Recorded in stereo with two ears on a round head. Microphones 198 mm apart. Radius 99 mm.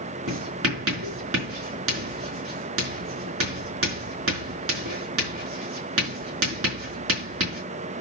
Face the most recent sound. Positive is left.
turn(degrees=-70)  # may be behind; listen again after turning